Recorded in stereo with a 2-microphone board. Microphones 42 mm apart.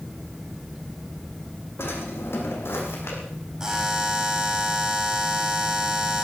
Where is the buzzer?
15° right (ahead or behind), 4 m.